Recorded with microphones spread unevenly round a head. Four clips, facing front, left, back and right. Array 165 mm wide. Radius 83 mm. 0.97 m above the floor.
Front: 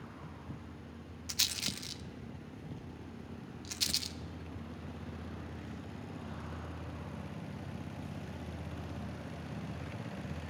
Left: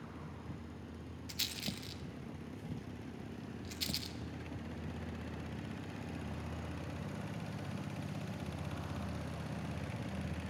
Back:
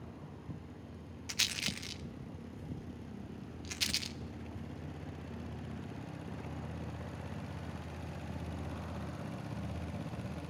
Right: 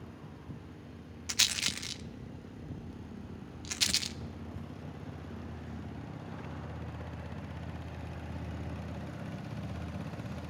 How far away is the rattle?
About 0.6 m.